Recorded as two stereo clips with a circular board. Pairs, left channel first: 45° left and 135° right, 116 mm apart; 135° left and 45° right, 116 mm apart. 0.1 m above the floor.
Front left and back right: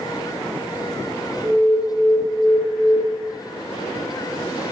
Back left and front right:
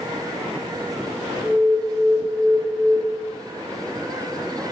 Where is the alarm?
Straight behind, 3 m.